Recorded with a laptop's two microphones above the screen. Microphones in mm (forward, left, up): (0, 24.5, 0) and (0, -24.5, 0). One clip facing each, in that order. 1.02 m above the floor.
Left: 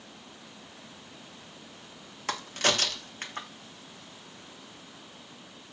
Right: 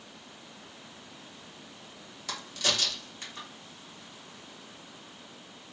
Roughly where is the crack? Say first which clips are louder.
Left 4 dB; left.